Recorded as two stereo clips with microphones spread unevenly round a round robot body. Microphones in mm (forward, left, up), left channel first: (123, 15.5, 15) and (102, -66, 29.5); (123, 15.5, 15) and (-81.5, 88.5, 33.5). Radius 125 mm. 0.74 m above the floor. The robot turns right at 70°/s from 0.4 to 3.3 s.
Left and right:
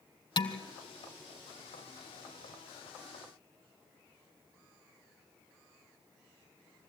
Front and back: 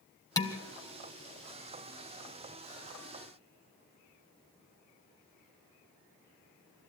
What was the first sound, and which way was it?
Dishes clattering, 55° left.